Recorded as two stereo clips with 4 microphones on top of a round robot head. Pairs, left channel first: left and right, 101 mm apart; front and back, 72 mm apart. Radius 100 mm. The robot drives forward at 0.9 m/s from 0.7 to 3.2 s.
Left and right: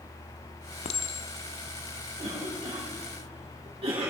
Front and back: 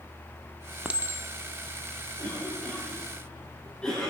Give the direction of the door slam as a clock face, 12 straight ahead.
No door slam in this recording.